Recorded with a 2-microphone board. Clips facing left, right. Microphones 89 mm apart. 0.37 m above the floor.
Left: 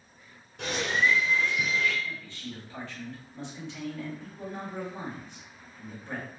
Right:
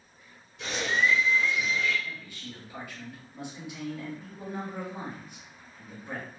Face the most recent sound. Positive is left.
turn(degrees=-10)  # may be behind; listen again after turning